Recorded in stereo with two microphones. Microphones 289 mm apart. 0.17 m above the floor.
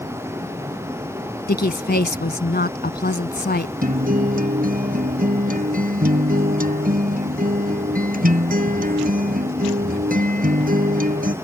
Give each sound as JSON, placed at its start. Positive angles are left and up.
{"t": 1.5, "sound": "a woman speaking", "side_deg": 35}
{"t": 3.8, "sound": "a guitar", "side_deg": -30}